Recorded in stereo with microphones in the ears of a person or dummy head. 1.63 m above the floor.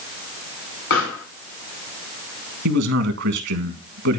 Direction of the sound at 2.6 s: 60° right (ahead or behind).